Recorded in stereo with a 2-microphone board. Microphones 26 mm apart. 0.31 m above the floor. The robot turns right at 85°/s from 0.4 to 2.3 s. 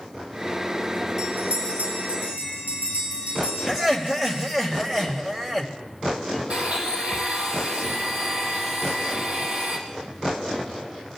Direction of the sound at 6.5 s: 55° right (ahead or behind).